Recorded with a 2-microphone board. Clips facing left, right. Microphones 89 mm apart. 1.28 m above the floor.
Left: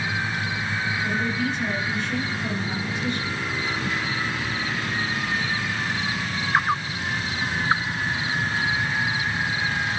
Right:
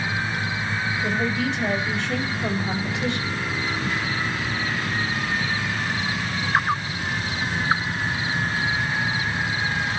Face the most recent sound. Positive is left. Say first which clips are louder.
# right 2 dB
turn(degrees=-75)  # may be behind; listen again after turning